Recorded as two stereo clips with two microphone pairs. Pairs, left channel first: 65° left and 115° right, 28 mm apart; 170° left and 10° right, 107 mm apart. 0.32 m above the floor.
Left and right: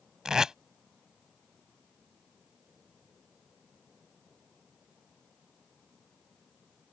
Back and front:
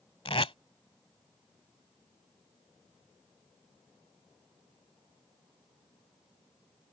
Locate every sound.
0.2 s tape being pulled: straight behind